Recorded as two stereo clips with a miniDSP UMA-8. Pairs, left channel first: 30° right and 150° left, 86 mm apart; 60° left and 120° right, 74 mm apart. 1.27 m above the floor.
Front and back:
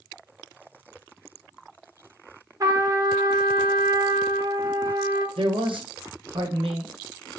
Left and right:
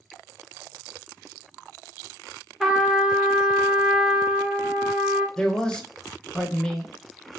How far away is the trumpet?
About 0.7 m.